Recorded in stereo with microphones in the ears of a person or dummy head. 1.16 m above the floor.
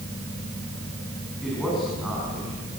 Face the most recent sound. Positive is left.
turn(degrees=0)  # may be behind; listen again after turning